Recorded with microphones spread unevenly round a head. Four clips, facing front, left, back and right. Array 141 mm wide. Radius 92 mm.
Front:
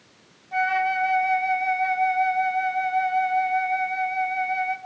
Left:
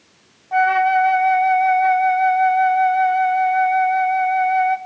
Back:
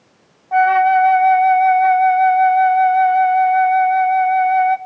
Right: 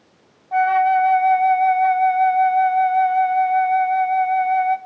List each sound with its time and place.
0.5 s a flute: 135° left, 0.7 m